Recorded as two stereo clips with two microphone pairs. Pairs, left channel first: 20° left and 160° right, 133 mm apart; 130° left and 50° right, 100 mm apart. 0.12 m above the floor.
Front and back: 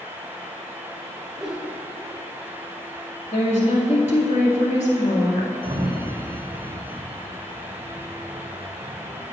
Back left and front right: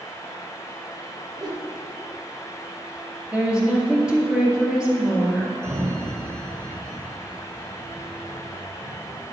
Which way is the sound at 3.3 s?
25° left.